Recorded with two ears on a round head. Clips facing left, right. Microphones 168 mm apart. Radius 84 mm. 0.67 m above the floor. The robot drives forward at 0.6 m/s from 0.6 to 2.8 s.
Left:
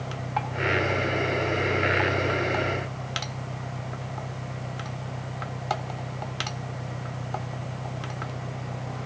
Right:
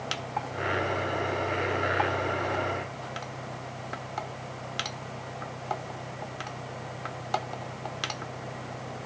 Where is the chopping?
I don't hear chopping.